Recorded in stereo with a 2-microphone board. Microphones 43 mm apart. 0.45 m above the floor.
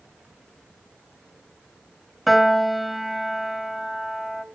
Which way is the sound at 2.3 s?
Centre (ahead or behind).